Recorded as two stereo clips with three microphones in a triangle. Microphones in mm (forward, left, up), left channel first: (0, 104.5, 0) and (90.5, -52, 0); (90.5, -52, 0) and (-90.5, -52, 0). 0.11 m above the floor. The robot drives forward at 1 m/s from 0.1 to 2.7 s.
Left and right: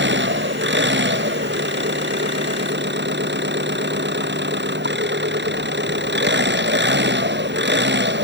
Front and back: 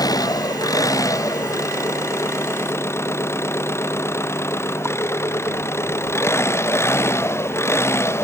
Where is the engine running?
70° right; by 8.2 s 75° right.